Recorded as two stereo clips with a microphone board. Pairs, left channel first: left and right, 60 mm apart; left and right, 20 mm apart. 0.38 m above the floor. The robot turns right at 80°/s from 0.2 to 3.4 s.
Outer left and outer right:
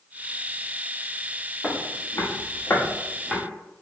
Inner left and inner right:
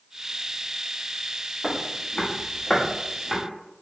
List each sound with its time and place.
1.6 s footsteps: 10° left (ahead or behind), 1.0 m; by 3.4 s 10° right (ahead or behind), 1.5 m